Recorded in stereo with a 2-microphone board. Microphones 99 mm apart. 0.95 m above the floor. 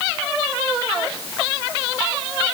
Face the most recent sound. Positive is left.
No sound to turn to.